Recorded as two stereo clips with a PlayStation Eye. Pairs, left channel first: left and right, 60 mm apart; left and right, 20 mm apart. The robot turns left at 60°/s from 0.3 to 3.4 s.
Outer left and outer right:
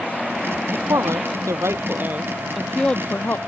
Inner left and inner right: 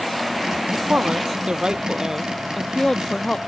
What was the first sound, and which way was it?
A woman speaking, 65° right.